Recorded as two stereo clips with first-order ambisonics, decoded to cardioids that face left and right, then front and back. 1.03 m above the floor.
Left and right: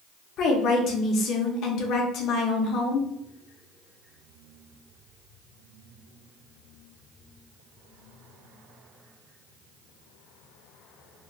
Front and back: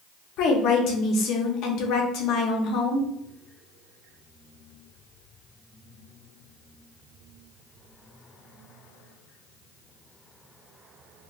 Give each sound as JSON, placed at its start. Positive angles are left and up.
{"t": 0.4, "sound": "a woman speaking", "azimuth_deg": 40, "distance_m": 0.6}